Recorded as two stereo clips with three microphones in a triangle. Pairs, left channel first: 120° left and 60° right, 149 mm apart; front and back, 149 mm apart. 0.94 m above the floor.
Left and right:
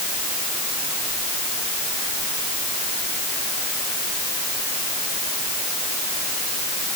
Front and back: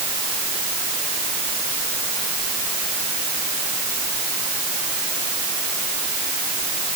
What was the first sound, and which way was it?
Only background noise.